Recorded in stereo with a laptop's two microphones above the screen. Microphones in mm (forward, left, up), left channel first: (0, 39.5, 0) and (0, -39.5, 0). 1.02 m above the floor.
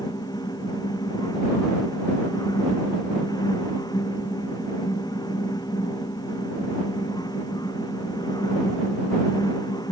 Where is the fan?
55° left (ahead or behind).